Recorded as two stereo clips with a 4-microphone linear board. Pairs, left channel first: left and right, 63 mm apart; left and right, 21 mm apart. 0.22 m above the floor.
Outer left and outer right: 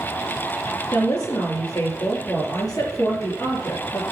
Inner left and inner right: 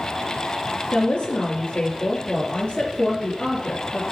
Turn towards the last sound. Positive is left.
turn(degrees=70)  # may be behind; listen again after turning